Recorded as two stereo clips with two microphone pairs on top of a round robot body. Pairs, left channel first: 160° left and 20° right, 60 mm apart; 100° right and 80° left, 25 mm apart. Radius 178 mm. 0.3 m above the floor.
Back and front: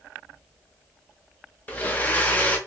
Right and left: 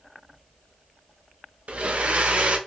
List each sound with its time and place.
1.7 s a blender: 100° left, 0.9 m